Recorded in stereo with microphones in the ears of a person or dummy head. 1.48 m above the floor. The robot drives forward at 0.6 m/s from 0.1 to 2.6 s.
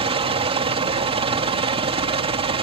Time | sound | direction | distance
0.0 | a helicopter | 35° right (ahead or behind) | ?